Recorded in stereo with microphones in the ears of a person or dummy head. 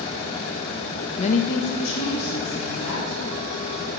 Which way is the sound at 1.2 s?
30° left (ahead or behind).